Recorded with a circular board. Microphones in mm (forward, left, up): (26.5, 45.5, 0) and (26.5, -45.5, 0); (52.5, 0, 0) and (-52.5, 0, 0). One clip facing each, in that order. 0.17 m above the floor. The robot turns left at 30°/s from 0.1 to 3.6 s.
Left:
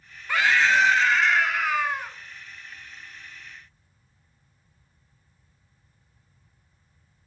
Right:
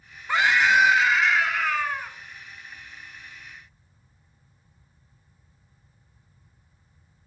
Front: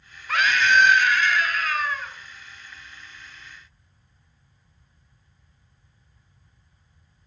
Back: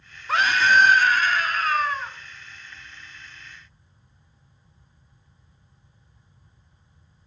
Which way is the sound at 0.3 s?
145° right.